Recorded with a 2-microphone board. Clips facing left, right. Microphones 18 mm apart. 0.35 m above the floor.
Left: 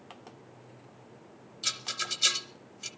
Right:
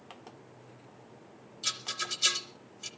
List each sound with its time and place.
1.6 s a rattle: 20° left (ahead or behind), 1.1 m